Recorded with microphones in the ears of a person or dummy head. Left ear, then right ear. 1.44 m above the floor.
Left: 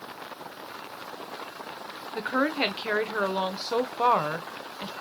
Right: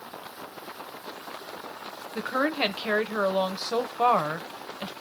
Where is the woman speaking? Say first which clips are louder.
Even; 5° left (ahead or behind), 0.6 m.